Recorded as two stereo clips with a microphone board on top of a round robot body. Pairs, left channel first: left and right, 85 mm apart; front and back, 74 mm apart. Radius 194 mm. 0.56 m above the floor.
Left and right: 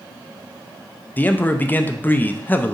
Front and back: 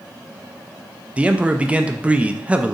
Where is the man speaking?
130° left, 0.6 m.